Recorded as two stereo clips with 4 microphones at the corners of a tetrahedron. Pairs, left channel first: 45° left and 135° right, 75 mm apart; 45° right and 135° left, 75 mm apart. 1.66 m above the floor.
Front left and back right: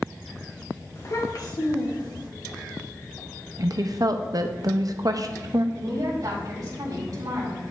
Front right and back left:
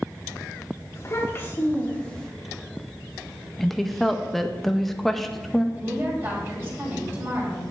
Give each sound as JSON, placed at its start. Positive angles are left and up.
{"t": 0.9, "sound": "a child speaking", "azimuth_deg": 0, "distance_m": 2.0}
{"t": 3.6, "sound": "a woman speaking", "azimuth_deg": -135, "distance_m": 0.7}
{"t": 5.8, "sound": "a woman speaking", "azimuth_deg": -170, "distance_m": 3.5}